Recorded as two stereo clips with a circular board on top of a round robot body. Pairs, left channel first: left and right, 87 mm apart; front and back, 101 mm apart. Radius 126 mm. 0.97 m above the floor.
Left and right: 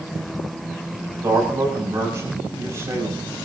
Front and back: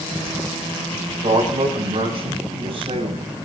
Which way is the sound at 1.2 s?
150° right.